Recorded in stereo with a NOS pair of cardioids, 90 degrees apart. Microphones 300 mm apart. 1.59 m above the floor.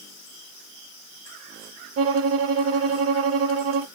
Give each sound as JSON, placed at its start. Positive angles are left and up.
{"t": 2.0, "sound": "a violin", "azimuth_deg": -50, "distance_m": 0.7}